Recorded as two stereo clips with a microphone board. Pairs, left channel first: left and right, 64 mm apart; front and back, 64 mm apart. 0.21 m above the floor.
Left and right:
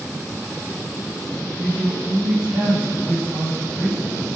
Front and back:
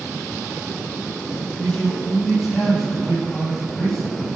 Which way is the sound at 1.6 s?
80° right.